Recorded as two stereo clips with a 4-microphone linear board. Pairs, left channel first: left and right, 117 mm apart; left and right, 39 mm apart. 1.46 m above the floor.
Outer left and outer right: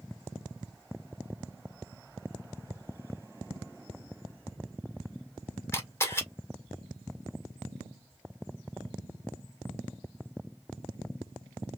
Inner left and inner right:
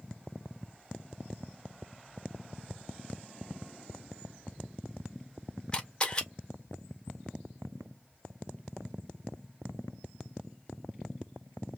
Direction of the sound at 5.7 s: 20° left (ahead or behind).